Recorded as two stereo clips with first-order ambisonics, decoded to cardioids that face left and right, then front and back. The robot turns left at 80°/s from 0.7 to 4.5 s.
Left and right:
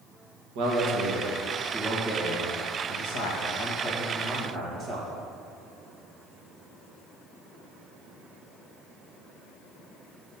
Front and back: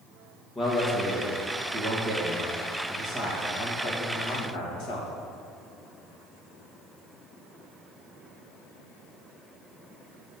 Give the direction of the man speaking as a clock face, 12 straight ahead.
3 o'clock.